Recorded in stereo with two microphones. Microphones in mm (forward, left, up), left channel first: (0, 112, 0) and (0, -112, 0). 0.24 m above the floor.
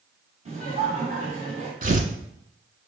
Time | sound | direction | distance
0.5 | laughter | 35° right (ahead or behind) | 1.8 m
1.8 | tearing paper | 40° right (ahead or behind) | 0.5 m